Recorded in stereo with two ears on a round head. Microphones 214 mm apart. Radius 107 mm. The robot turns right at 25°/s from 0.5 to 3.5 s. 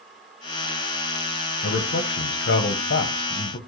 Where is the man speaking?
85° left, 0.8 m; by 3.6 s 130° left, 0.8 m.